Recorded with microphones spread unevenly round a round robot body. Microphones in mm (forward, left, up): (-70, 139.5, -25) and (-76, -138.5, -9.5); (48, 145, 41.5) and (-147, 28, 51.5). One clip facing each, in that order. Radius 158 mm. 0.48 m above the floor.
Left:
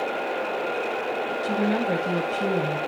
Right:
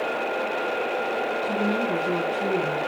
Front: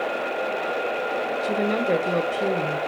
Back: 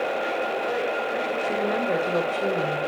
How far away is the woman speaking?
About 2.5 m.